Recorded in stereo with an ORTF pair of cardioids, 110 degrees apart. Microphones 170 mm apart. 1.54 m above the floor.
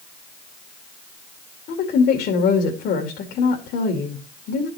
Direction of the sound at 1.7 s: 70° left.